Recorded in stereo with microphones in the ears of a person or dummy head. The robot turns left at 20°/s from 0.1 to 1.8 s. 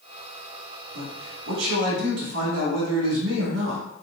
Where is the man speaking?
85° right, 2 m; by 3.8 s 75° right (ahead or behind), 2 m.